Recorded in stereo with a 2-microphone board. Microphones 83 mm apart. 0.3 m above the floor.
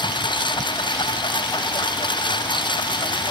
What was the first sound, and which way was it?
A lawn mower, 70° left (ahead or behind).